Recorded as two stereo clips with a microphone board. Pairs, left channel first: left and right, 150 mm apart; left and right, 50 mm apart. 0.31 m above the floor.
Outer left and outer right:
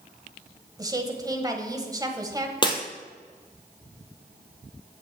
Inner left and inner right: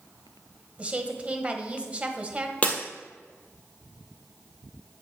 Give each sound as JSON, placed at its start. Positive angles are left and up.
{"t": 0.8, "sound": "a woman speaking", "side_deg": -25, "distance_m": 1.2}
{"t": 2.6, "sound": "breaking glass", "side_deg": 30, "distance_m": 1.7}